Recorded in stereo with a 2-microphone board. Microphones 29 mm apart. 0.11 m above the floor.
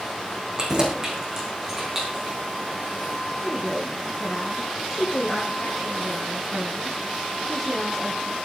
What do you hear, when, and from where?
0.6 s keys jangling: 30° right (ahead or behind), 4 m; by 2.4 s 15° right (ahead or behind), 6.5 m
3.4 s a woman speaking: 5° left (ahead or behind), 4.5 m